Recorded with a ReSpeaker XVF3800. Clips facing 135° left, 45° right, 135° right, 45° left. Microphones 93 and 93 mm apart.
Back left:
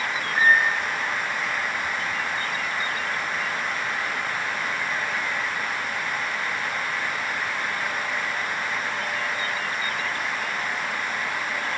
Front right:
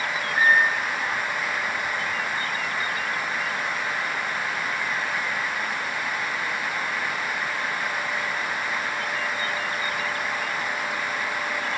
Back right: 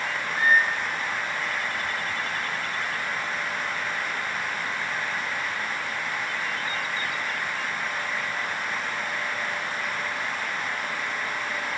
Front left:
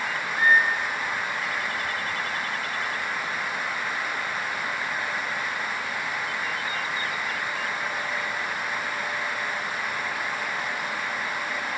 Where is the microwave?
140° right, 2.5 m.